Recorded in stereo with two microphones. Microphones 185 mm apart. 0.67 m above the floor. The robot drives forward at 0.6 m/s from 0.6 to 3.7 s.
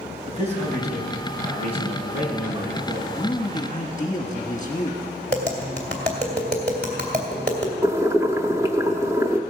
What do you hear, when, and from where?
0.3 s a man speaking: 40° right (ahead or behind), 4 m; by 3.0 s 30° right (ahead or behind), 5 m
3.1 s a man speaking: 25° left (ahead or behind), 1.2 m; by 5.0 s 20° left (ahead or behind), 1.2 m
5.3 s tapping: 60° right (ahead or behind), 2.5 m
7.8 s boiling: 15° right (ahead or behind), 0.8 m